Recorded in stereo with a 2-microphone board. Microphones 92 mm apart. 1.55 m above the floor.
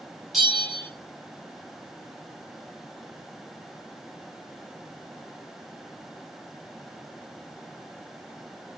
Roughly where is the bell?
Centre.